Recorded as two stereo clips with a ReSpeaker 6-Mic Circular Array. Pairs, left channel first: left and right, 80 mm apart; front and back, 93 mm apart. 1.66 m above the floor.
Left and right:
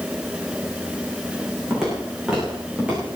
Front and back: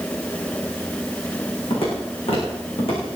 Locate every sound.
1.7 s footsteps: 5° right, 8 m; by 3.2 s 20° right, 7.5 m